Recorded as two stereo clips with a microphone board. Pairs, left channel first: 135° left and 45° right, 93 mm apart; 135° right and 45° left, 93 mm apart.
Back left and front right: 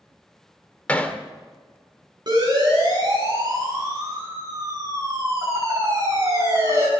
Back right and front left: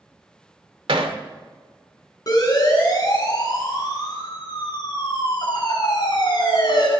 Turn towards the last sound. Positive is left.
turn(degrees=-105)